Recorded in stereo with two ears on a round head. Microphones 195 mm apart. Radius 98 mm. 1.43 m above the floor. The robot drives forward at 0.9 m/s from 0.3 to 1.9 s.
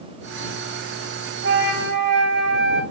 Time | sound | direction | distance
1.4 | a flute | 65° right (ahead or behind) | 1.7 m